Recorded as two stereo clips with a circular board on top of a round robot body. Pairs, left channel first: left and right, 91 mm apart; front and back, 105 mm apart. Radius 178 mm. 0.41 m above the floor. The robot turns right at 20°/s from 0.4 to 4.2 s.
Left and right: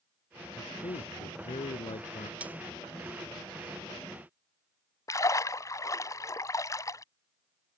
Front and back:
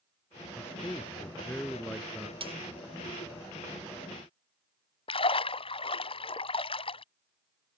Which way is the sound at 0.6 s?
65° left.